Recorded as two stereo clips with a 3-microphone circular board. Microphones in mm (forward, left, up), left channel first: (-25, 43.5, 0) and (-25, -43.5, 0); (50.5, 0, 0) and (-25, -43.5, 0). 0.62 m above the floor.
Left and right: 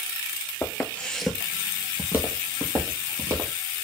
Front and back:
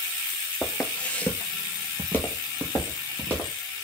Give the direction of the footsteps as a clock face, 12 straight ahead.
9 o'clock.